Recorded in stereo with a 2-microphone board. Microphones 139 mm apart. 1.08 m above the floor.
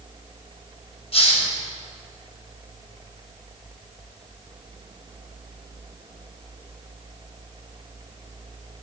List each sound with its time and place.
1.1 s a hiss: 50° left (ahead or behind), 3 m